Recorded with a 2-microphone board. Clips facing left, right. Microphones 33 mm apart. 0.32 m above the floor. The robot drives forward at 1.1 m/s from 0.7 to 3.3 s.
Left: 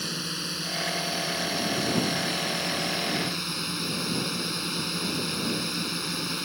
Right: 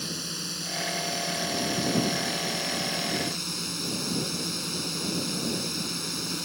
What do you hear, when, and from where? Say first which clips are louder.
0.0 s a drone: left 2 dB; 25° left (ahead or behind)